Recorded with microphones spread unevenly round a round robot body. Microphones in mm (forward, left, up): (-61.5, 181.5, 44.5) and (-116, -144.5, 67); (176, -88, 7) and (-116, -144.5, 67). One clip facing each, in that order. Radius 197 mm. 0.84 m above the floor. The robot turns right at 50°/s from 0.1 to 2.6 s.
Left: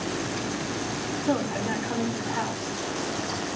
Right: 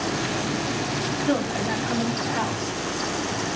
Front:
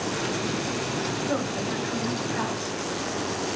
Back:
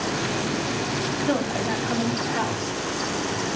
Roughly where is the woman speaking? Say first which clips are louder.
Right 2 dB, back 6 dB; behind.